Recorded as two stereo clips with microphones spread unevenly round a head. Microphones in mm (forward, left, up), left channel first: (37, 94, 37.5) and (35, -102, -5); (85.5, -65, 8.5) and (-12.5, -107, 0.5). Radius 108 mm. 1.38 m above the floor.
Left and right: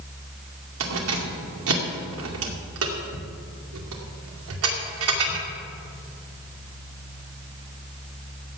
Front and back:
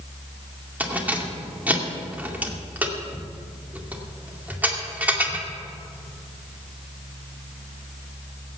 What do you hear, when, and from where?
0.8 s keys jangling: 80° right, 2 m